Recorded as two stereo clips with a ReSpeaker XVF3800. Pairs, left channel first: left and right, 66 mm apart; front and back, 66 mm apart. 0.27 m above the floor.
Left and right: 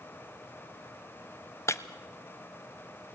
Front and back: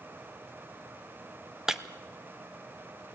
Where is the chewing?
I don't hear chewing.